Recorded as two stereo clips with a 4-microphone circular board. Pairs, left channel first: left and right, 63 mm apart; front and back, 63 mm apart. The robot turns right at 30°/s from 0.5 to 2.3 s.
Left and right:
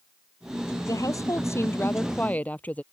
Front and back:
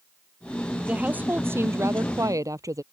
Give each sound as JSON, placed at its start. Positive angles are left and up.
{"t": 0.8, "sound": "a woman speaking", "azimuth_deg": 110}